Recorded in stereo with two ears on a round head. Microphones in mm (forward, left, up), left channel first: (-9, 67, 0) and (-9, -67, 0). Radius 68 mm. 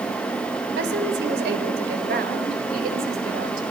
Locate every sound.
0.8 s a woman speaking: 80° right, 4 m; by 3.6 s 65° right (ahead or behind), 5.5 m